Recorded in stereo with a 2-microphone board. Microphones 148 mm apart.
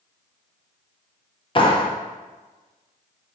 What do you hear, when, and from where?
1.6 s a clap: 35° left (ahead or behind), 0.6 m